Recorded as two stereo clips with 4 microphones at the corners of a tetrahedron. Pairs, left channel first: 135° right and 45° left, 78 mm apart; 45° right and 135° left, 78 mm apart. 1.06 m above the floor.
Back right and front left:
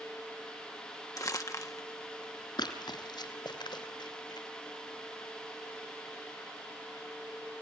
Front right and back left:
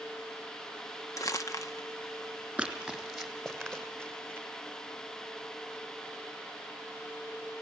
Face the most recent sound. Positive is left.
turn(degrees=-120)